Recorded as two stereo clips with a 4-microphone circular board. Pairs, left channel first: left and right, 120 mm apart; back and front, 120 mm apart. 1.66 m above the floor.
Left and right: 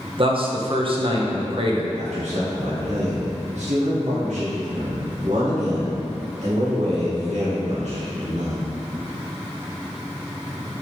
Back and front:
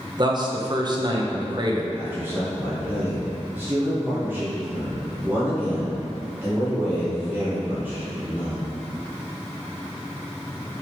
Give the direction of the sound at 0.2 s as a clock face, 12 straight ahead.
2 o'clock.